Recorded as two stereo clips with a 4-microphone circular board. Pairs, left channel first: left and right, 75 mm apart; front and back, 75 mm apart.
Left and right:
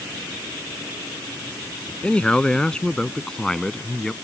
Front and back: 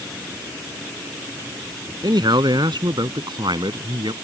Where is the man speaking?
165° left; by 4.1 s 175° left.